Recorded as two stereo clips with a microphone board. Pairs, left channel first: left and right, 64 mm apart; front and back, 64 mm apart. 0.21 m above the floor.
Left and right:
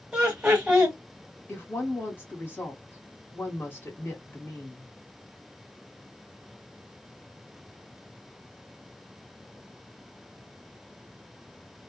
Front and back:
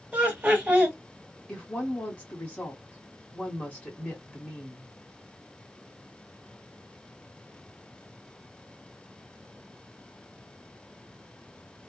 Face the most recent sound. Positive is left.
turn(degrees=55)